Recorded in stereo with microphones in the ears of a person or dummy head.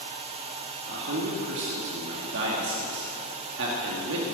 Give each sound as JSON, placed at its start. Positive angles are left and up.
{"t": 0.9, "sound": "a man speaking", "side_deg": -70, "distance_m": 2.5}